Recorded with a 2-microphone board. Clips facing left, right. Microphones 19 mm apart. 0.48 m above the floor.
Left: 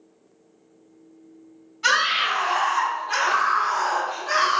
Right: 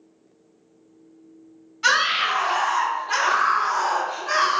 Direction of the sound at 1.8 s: 30° right (ahead or behind).